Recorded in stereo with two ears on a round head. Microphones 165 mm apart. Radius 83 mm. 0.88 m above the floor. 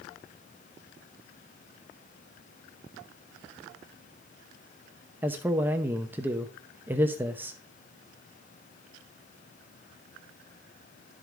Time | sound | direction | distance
5.2 | a man speaking | 10° right (ahead or behind) | 0.7 m